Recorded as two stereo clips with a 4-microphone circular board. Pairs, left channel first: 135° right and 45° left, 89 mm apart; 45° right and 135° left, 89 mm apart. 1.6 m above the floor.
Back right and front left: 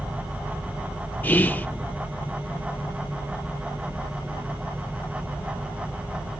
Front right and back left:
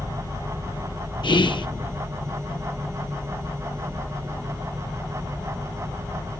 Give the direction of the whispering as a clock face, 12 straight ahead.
2 o'clock.